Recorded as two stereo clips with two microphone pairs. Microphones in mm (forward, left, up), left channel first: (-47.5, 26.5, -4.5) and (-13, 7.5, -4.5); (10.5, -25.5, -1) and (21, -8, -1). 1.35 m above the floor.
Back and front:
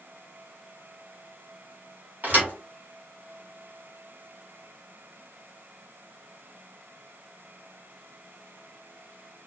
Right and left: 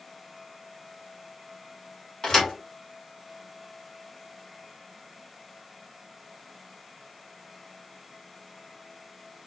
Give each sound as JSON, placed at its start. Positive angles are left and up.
{"t": 2.2, "sound": "a thud", "azimuth_deg": -70, "distance_m": 2.0}